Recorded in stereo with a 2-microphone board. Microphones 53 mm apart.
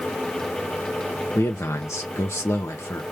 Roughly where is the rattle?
No rattle in this recording.